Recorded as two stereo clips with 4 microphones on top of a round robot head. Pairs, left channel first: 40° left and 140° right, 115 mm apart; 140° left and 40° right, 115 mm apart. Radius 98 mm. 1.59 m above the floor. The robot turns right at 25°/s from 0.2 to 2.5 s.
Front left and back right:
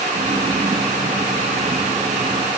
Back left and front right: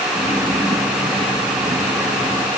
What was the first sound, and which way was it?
Only background noise.